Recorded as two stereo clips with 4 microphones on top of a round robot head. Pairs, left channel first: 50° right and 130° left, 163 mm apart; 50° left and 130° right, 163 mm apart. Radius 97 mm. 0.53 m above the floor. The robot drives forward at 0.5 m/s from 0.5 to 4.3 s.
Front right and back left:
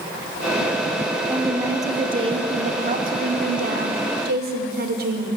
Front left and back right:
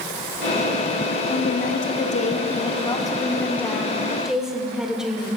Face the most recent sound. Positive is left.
turn(degrees=140)